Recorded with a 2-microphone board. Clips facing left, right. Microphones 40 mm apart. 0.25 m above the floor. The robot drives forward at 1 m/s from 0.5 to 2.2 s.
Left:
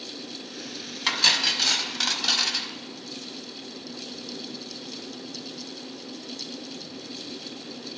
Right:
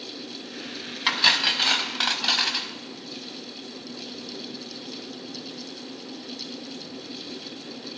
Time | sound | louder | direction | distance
1.1 | cutlery clinking | right 2 dB | 15° right (ahead or behind) | 0.9 m